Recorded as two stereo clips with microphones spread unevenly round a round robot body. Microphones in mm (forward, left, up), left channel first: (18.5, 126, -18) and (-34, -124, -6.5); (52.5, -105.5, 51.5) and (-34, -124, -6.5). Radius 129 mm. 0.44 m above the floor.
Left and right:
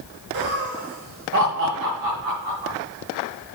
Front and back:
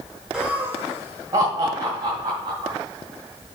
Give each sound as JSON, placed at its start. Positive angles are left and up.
{"t": 0.3, "sound": "laughter", "azimuth_deg": -120, "distance_m": 1.1}